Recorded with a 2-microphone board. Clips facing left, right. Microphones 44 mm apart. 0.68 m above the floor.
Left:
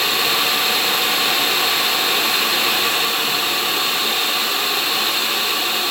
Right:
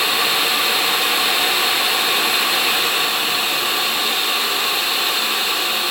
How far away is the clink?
No clink in this recording.